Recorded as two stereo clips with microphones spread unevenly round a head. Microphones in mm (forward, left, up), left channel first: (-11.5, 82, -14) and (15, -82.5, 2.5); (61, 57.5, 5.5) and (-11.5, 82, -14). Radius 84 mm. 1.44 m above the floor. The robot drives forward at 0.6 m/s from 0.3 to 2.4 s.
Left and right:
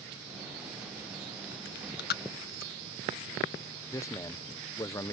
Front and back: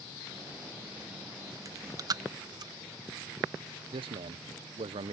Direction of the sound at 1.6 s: 120° left.